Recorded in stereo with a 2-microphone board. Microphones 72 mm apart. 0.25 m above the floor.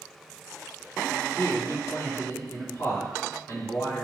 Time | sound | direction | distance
1.4 | a man speaking | 55° left (ahead or behind) | 2.0 m